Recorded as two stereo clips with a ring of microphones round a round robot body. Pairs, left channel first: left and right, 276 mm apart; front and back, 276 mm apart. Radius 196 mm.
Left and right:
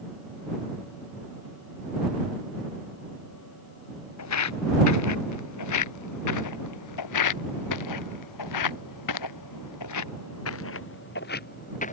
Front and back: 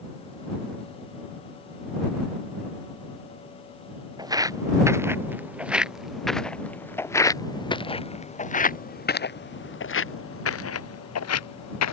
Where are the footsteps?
105° left; by 11.9 s 15° left.